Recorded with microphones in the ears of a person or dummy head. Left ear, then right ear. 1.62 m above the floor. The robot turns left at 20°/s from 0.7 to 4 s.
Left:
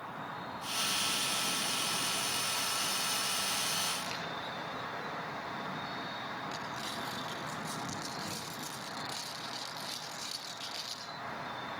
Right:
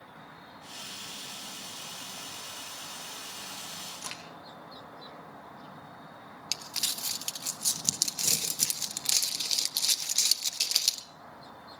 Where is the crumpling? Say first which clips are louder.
Right 5 dB; 80° right, 1.5 m.